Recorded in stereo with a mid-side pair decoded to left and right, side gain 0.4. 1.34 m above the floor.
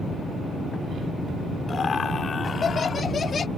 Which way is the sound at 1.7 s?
45° left.